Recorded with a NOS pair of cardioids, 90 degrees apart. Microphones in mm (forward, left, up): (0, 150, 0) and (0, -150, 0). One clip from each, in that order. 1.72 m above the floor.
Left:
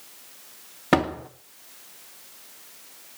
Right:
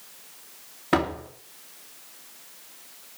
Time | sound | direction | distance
0.9 | a door slam | 55° left | 2.5 m